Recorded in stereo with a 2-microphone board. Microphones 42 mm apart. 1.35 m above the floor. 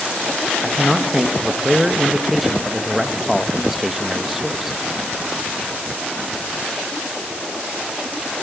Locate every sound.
0.6 s a man speaking: 5° right (ahead or behind), 1.9 m